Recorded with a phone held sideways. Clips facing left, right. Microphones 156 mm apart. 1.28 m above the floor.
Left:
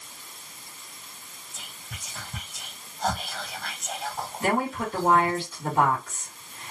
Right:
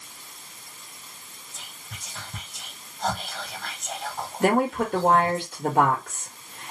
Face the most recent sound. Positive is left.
turn(degrees=-60)  # may be behind; listen again after turning